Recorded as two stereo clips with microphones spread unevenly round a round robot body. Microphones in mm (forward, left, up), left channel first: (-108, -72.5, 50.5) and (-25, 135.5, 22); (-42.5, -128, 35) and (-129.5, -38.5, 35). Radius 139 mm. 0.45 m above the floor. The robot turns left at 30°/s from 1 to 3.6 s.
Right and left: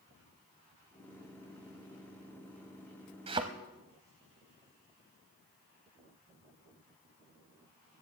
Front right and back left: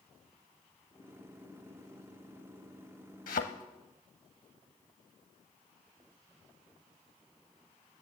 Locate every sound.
3.3 s a thud: 5° right, 0.5 m; by 3.4 s 10° right, 0.5 m